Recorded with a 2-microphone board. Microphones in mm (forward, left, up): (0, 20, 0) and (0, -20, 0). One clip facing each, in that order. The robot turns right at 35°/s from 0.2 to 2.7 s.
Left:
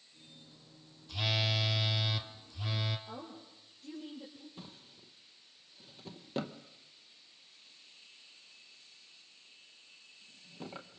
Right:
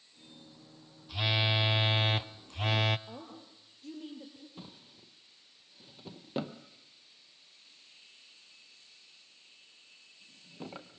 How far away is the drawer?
About 0.8 m.